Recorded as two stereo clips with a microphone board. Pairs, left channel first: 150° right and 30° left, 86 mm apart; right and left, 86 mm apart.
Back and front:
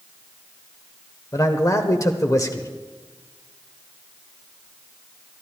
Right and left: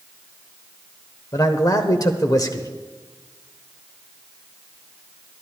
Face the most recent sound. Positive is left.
turn(degrees=-115)